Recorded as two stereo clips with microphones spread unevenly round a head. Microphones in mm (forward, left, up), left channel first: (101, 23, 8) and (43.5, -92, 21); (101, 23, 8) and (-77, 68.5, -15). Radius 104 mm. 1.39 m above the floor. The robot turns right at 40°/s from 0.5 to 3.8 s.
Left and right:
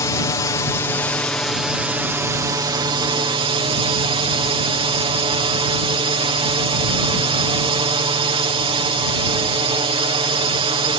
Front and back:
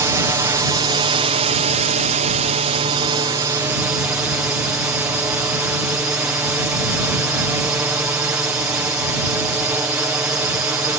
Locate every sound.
0.0 s a drone: 105° left; by 11.0 s 120° right